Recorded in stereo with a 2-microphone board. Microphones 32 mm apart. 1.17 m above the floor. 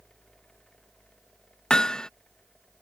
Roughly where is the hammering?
Left.